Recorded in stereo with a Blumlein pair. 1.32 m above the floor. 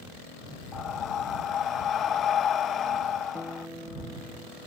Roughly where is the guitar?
Ahead.